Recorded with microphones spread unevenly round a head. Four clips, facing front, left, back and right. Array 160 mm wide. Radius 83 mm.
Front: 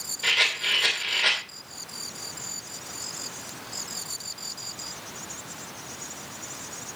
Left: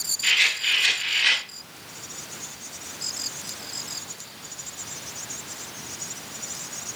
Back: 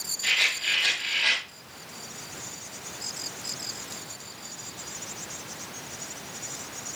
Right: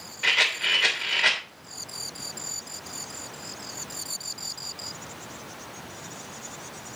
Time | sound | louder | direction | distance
0.2 | a rattle | even, front 2 dB | 40° right | 3 m